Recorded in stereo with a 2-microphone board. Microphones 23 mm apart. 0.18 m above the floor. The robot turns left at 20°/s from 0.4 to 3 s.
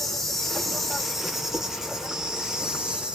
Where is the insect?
Straight ahead, 0.8 m; by 3.1 s 50° right, 0.8 m.